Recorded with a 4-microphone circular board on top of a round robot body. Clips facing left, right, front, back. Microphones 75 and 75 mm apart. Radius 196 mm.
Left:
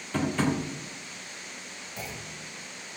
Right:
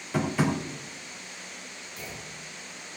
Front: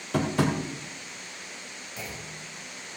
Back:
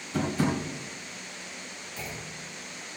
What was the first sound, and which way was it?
Tapping, 10° right.